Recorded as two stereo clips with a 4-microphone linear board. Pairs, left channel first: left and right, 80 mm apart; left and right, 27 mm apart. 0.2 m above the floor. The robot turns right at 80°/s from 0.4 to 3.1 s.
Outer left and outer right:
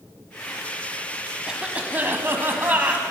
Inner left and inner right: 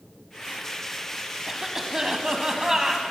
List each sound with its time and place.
1.5 s a cough: 5° right (ahead or behind), 1.2 m; by 3.0 s 15° right (ahead or behind), 1.2 m